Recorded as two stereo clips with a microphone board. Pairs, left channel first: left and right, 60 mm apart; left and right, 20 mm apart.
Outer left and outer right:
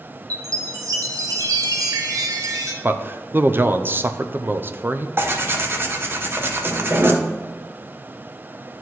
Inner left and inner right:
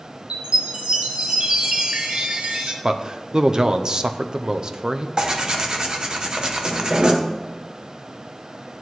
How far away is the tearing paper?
About 1.0 m.